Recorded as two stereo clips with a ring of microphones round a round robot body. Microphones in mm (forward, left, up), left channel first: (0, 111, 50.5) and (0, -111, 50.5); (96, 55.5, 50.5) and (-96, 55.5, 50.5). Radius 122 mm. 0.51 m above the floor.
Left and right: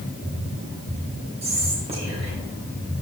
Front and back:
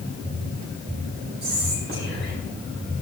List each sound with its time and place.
1.4 s whispering: 150° right, 3 m